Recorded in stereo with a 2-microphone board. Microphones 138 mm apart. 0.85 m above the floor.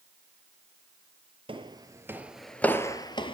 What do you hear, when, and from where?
1.5 s footsteps: 40° right (ahead or behind), 1.1 m; by 3.4 s 40° left (ahead or behind), 1.1 m